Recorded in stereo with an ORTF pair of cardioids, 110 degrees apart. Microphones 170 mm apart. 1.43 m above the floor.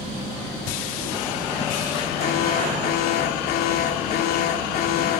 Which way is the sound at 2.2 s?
65° left.